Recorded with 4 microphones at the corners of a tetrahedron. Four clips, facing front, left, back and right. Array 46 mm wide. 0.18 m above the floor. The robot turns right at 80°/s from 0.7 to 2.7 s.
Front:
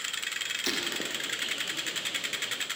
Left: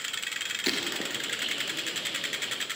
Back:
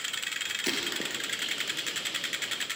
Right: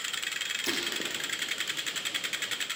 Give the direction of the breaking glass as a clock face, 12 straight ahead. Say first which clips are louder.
Left 4 dB, back 1 dB; 9 o'clock.